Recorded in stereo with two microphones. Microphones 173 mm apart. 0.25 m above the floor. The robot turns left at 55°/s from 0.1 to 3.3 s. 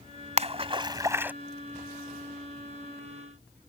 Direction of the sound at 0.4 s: 40° right (ahead or behind).